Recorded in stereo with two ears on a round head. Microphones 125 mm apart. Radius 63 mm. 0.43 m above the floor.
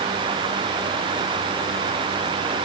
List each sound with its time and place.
Only background noise.